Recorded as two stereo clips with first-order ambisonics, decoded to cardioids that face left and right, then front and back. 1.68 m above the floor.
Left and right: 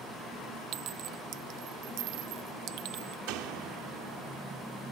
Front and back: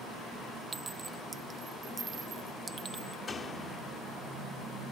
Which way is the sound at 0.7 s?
105° right.